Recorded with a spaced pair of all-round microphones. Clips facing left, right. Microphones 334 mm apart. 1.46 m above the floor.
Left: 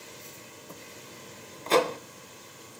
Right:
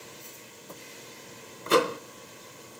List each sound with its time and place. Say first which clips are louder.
1.7 s a microwave: right 1 dB; 20° right (ahead or behind), 0.6 m